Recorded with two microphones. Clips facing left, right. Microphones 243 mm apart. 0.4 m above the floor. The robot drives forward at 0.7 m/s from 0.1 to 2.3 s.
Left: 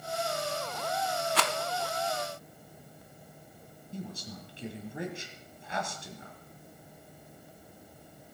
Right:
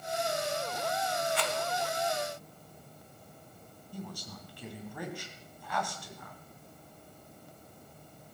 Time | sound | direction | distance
1.4 | a rattle | 85° left | 0.8 m
3.9 | a woman speaking | 25° left (ahead or behind) | 2.5 m